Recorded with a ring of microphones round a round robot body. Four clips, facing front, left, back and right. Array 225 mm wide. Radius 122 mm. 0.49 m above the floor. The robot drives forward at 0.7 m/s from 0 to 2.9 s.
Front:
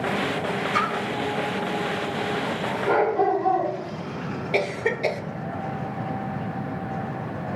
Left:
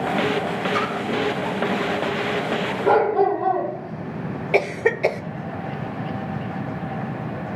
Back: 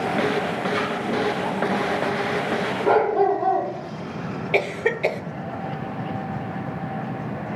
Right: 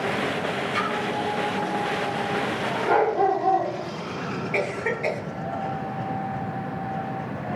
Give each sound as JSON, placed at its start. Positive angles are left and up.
{"t": 0.7, "sound": "a splash", "azimuth_deg": 30, "distance_m": 6.0}
{"t": 2.8, "sound": "a dog barking", "azimuth_deg": 120, "distance_m": 7.5}
{"t": 4.5, "sound": "a cough", "azimuth_deg": 105, "distance_m": 1.0}